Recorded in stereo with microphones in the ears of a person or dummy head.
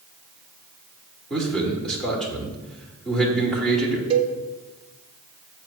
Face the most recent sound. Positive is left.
turn(degrees=-30)  # may be behind; listen again after turning